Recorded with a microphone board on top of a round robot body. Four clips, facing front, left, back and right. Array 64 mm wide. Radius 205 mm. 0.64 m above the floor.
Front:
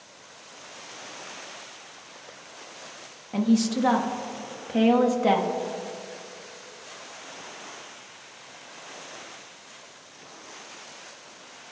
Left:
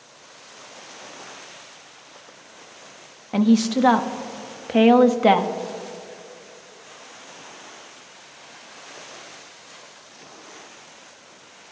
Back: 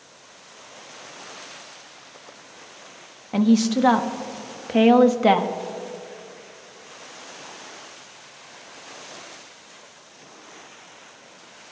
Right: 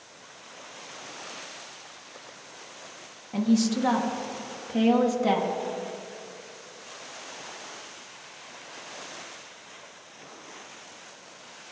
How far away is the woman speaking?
About 1.1 m.